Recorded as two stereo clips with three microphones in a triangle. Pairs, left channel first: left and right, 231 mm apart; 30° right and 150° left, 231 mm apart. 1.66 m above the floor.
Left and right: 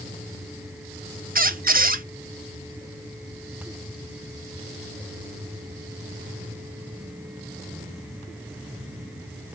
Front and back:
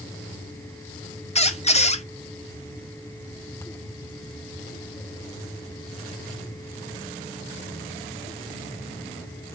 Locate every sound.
1.4 s a squeak: 75° right, 0.6 m